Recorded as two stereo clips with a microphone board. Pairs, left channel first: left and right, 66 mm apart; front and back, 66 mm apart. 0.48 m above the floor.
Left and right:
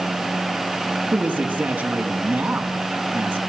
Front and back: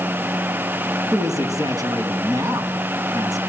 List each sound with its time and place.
1.1 s a man speaking: 160° right, 4 m